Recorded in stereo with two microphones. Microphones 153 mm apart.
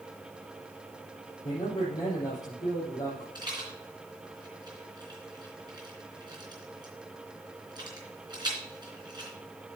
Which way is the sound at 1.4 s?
20° left (ahead or behind).